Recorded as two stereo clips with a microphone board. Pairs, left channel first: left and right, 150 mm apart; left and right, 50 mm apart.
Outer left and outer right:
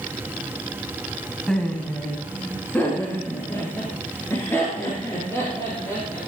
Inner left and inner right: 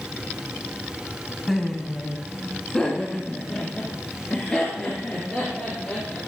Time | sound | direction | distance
1.5 | laughter | 5° left (ahead or behind) | 1.5 m